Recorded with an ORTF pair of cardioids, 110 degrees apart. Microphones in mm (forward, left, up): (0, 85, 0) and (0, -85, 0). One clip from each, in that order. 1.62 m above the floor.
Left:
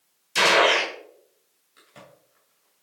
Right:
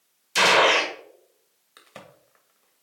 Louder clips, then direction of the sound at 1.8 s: Right 3 dB; 55° right.